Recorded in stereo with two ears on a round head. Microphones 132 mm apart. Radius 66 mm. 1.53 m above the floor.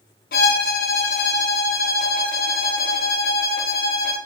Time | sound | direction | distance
0.3 | a violin | 70° left (ahead or behind) | 1.1 m